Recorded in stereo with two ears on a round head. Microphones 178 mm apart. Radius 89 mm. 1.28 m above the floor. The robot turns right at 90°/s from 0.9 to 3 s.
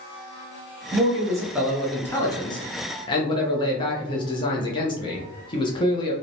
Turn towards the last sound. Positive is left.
turn(degrees=25)  # may be behind; listen again after turning